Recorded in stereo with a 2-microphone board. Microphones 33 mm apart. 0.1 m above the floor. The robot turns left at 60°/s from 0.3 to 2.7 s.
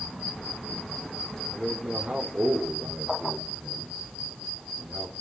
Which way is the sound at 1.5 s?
15° right.